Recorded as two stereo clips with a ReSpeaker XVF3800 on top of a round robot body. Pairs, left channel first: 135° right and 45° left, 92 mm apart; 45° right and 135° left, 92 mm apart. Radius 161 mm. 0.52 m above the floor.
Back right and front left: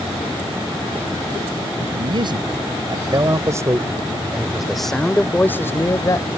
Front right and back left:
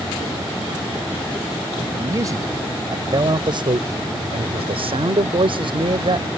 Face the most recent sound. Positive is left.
turn(degrees=170)